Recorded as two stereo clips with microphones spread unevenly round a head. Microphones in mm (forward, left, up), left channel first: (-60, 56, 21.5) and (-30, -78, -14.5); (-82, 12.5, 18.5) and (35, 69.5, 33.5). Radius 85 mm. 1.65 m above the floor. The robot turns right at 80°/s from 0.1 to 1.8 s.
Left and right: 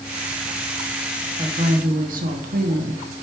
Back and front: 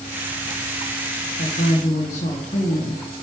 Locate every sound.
1.4 s a woman speaking: 135° right, 1.4 m; by 3.0 s 100° right, 1.4 m